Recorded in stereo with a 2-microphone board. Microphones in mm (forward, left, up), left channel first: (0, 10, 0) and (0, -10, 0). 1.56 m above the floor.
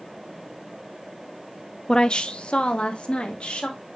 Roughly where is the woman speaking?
Left.